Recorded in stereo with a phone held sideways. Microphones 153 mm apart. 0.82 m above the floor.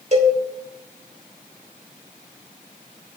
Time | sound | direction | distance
0.1 | a cowbell | 50° right (ahead or behind) | 3 m